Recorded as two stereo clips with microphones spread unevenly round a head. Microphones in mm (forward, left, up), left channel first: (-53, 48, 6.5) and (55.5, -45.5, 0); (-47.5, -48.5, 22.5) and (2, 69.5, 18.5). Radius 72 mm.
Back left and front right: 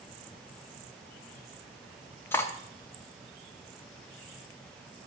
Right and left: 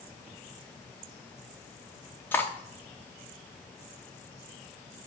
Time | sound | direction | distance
2.3 | cutlery clinking | 170° right | 0.7 m